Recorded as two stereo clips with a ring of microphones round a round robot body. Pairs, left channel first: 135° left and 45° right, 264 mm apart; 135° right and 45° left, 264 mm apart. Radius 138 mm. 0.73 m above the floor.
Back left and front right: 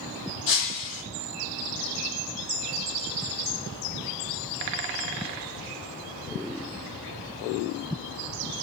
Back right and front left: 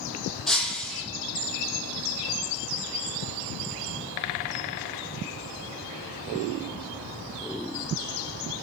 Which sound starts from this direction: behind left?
Breaking glass, at 0.5 s.